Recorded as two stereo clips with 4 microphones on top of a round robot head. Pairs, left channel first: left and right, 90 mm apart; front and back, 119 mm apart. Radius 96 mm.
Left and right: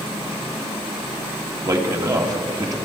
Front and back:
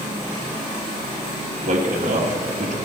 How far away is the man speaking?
About 2.5 m.